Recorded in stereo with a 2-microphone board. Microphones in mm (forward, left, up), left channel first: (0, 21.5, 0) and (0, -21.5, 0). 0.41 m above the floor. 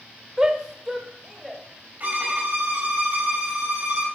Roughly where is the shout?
Centre.